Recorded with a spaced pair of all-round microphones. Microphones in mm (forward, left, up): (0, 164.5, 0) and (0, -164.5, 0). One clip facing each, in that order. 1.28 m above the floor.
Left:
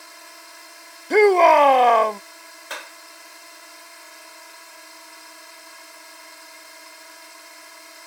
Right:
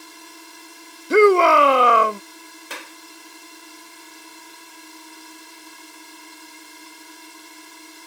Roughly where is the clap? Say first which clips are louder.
Even; right.